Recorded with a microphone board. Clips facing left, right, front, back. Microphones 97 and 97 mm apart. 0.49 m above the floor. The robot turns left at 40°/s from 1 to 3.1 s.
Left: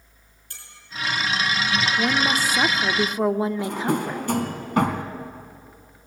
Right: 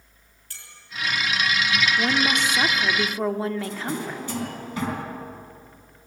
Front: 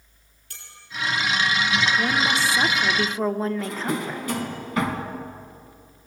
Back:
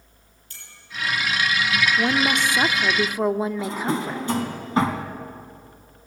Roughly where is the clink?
Ahead.